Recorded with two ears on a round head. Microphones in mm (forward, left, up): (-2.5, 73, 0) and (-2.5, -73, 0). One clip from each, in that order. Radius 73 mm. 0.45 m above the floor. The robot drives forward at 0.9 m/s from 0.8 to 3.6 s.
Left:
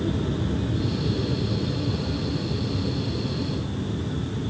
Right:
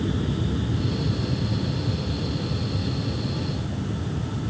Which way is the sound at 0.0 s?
15° right (ahead or behind).